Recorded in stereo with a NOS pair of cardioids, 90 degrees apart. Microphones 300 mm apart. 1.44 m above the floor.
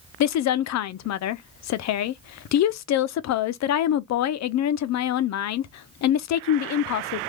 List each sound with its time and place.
0.2 s a woman speaking: 65° left, 0.6 m